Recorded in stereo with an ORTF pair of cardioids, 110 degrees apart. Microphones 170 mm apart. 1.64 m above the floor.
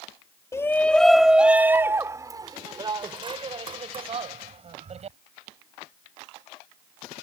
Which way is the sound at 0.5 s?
15° left.